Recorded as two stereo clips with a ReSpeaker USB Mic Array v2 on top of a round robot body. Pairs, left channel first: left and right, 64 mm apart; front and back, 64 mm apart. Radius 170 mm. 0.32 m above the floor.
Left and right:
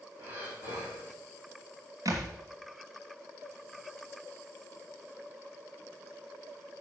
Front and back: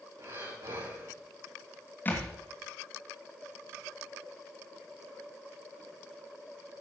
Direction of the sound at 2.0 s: 60° right.